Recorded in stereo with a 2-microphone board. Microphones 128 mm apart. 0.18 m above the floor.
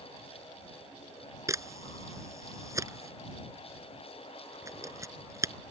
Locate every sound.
1.5 s a camera shutter: 25° right (ahead or behind)